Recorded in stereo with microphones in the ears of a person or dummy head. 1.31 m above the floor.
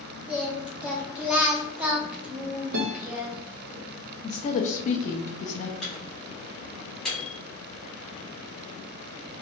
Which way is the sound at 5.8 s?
5° right (ahead or behind).